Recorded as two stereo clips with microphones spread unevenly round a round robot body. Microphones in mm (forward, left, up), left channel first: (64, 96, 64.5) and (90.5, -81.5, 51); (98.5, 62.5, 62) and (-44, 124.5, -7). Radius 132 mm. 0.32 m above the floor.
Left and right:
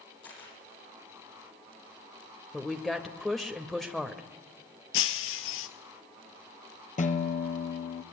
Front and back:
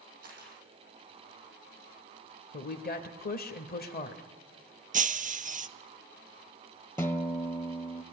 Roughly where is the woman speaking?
Ahead.